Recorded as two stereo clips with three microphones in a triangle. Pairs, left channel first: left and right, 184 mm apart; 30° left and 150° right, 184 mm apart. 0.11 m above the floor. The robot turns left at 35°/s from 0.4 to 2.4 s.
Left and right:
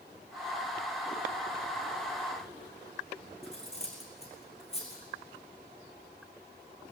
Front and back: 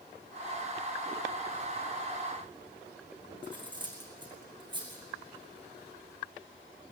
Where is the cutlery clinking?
145° left, 4 m.